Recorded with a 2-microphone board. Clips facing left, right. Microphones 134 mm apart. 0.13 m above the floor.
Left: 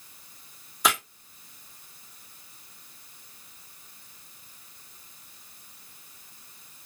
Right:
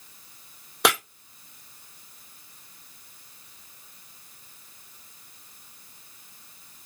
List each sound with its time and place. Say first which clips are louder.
0.8 s breaking glass: right 3 dB; 75° right (ahead or behind), 1.9 m